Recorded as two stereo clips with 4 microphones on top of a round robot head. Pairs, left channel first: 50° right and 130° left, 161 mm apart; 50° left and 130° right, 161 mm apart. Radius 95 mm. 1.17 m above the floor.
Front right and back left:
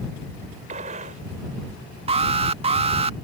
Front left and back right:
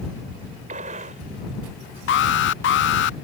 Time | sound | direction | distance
0.7 | a gunshot | straight behind | ?
2.1 | an alarm | 70° left | ?